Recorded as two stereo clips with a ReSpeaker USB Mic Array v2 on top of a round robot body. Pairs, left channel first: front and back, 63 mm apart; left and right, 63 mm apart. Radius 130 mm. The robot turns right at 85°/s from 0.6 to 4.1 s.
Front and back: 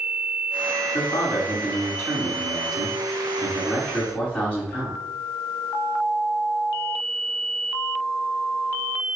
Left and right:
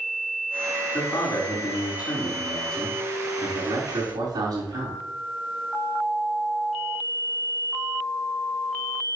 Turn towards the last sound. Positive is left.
turn(degrees=-70)